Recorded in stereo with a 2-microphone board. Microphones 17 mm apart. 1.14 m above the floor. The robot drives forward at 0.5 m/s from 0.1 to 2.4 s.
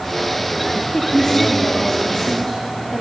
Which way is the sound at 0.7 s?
45° left (ahead or behind).